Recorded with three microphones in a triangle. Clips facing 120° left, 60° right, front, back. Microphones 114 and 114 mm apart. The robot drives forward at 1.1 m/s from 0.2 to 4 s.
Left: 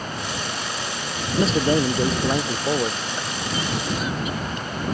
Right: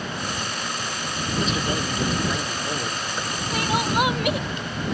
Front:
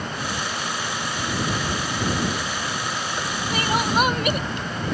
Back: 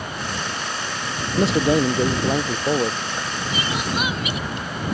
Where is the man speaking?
175° left.